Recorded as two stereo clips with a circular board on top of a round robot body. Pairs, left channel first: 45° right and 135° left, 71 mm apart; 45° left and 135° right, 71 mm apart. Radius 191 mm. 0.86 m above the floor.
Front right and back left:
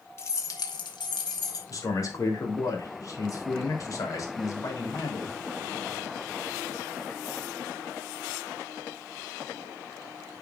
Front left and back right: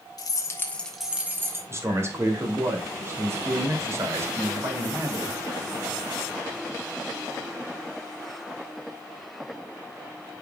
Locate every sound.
0.2 s keys jangling: 10° left, 1.3 m; by 1.6 s 80° right, 1.5 m
1.7 s a man speaking: 85° right, 2.5 m